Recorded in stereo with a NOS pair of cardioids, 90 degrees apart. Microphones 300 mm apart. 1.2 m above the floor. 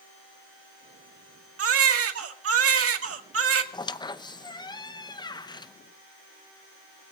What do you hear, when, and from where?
1.6 s a baby crying: 50° right, 1.8 m
3.7 s a squeak: 15° left, 0.8 m